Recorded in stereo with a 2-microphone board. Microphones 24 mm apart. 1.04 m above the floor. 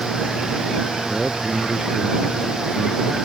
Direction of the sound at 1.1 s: 45° right (ahead or behind).